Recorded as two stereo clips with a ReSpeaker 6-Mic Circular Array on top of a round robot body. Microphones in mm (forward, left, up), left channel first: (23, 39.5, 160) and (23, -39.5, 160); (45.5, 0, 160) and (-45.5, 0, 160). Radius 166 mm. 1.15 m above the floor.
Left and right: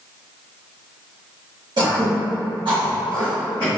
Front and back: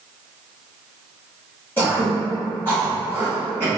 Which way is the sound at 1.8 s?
70° right.